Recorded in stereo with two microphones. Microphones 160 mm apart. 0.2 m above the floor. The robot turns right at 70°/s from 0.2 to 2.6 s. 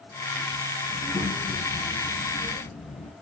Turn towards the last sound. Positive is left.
turn(degrees=105)